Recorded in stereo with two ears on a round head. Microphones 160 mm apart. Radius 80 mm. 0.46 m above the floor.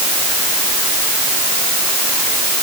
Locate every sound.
Only background noise.